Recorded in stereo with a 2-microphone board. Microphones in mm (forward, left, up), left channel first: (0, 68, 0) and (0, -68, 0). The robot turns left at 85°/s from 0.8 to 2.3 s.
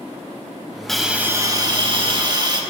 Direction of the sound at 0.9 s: 5° left.